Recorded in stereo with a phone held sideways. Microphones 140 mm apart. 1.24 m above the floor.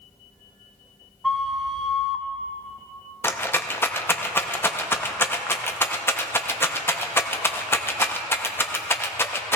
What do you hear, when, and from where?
1.2 s a flute: centre (ahead or behind), 0.6 m
3.2 s a rattle: 15° left (ahead or behind), 0.6 m